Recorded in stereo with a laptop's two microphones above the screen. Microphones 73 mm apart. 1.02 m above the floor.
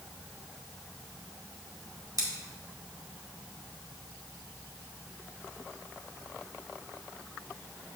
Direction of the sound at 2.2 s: 55° right (ahead or behind).